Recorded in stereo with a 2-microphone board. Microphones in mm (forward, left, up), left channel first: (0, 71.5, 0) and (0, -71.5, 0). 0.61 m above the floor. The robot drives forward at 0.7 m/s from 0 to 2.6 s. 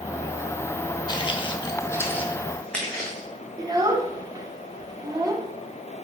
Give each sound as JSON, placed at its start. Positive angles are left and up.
{"t": 1.1, "sound": "footsteps", "side_deg": 30, "distance_m": 0.9}
{"t": 3.6, "sound": "a child speaking", "side_deg": -25, "distance_m": 0.8}